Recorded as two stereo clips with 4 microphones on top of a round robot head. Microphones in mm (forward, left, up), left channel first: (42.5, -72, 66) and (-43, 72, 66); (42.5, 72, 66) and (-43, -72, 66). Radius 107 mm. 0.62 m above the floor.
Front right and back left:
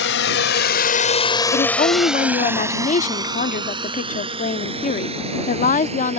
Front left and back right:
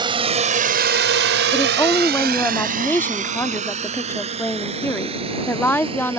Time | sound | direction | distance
0.0 | a drone | 55° right | ?
1.5 | a woman speaking | 20° right | ?